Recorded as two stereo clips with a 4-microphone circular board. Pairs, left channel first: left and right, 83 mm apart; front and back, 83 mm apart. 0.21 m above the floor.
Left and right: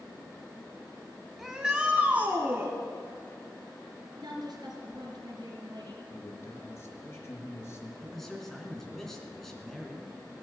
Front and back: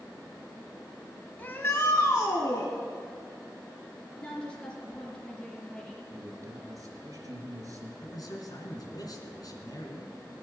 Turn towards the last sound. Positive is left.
turn(degrees=5)